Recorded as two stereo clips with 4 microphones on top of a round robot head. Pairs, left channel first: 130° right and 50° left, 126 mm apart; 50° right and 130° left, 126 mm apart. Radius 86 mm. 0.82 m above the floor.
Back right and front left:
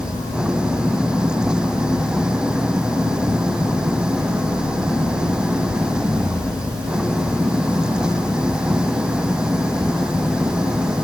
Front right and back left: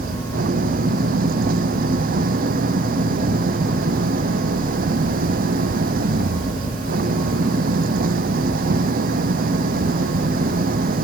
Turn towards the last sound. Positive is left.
turn(degrees=135)